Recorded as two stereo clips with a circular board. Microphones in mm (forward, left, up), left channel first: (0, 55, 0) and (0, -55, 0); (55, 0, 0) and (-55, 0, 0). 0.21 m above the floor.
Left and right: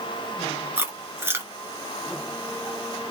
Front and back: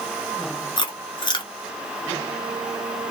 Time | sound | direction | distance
0.8 | chewing | 25° right | 0.8 m